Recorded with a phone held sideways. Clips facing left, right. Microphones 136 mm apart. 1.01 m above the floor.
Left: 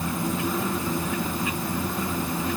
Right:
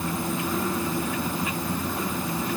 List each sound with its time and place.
Only background noise.